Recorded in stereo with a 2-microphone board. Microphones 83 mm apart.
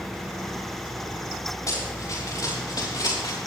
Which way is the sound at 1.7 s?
40° left (ahead or behind).